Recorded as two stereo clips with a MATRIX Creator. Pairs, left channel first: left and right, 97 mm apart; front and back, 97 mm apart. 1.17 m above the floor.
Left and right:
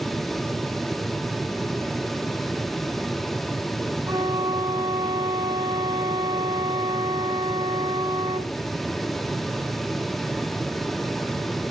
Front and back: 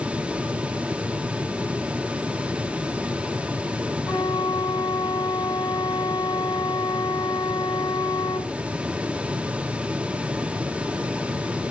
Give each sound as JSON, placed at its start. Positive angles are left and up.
{"t": 4.1, "sound": "a flute", "azimuth_deg": -40, "distance_m": 2.5}